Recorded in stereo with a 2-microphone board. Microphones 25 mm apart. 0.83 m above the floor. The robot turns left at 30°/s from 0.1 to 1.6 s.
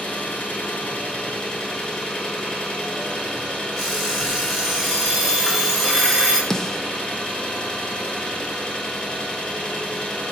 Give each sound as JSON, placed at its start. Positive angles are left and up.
{"t": 0.0, "sound": "an engine running", "azimuth_deg": 80, "distance_m": 2.5}
{"t": 3.8, "sound": "an alarm clock", "side_deg": 15, "distance_m": 4.5}
{"t": 6.5, "sound": "a snare drum", "side_deg": 15, "distance_m": 0.7}